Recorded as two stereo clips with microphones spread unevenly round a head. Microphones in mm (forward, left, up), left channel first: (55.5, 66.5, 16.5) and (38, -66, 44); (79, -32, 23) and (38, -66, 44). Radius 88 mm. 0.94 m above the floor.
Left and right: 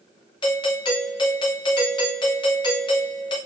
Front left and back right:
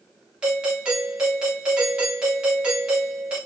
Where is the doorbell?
135° left, 3 m.